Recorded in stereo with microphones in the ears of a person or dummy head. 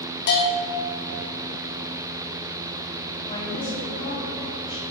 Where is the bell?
60° left (ahead or behind), 2.5 m.